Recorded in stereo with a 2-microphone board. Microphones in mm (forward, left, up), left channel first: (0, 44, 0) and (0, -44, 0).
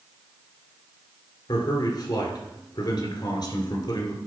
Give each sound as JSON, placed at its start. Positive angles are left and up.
{"t": 1.5, "sound": "a man speaking", "side_deg": 60, "distance_m": 2.5}